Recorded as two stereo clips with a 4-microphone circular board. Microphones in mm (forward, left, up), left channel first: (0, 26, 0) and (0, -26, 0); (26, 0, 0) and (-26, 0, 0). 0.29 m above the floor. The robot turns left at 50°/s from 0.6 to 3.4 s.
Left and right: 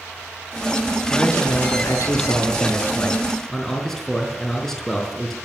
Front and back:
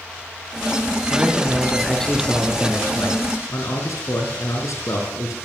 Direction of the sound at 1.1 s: 125° left.